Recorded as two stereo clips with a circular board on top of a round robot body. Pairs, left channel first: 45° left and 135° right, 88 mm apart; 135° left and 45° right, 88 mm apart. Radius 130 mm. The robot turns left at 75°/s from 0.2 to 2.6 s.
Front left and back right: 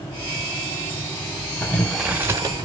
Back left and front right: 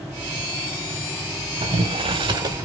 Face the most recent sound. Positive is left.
turn(degrees=-95)